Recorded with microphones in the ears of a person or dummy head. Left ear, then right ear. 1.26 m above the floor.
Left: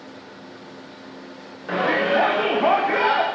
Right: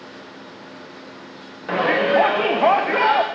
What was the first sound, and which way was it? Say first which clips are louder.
A shout: right 2 dB; 25° right (ahead or behind).